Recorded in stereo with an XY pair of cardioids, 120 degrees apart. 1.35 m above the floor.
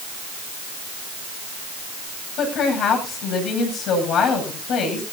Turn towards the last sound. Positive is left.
turn(degrees=65)